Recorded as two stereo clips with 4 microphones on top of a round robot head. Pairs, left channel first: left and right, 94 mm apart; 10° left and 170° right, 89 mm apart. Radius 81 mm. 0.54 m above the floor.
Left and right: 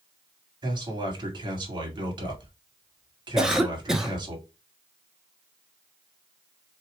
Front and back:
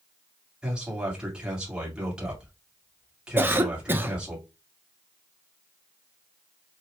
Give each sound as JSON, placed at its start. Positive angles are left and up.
{"t": 0.6, "sound": "a man speaking", "azimuth_deg": -95, "distance_m": 2.0}
{"t": 3.4, "sound": "a cough", "azimuth_deg": -165, "distance_m": 1.1}